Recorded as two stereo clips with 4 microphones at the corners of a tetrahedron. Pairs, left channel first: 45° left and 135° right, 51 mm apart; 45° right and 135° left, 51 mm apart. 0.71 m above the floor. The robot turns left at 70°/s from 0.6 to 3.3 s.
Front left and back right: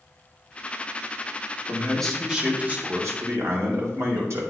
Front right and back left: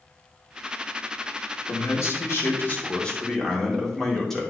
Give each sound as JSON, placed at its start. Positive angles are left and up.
{"t": 1.7, "sound": "a man speaking", "azimuth_deg": -15, "distance_m": 2.0}